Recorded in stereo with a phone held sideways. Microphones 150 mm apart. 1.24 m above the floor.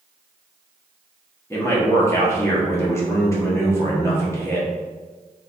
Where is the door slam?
I don't hear a door slam.